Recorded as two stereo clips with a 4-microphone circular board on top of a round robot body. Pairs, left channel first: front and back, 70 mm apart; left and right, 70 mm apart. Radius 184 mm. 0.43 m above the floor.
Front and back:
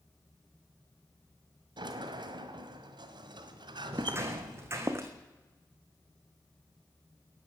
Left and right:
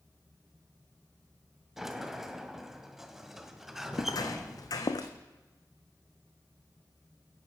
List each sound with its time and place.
1.8 s a sliding door: 175° right, 1.7 m
3.9 s footsteps: 120° left, 1.4 m; by 5.1 s 125° left, 2 m